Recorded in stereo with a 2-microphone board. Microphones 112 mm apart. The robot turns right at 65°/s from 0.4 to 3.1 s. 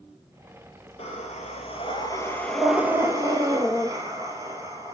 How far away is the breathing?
About 1.2 m.